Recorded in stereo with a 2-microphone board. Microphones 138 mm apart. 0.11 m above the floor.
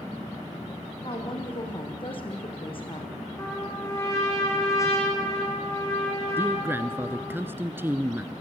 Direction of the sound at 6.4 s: 15° right (ahead or behind).